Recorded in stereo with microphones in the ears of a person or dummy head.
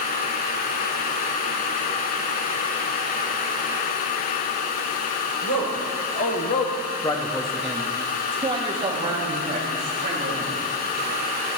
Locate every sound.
5.4 s a man speaking: 70° left (ahead or behind), 1.2 m; by 10.6 s 35° right (ahead or behind), 3 m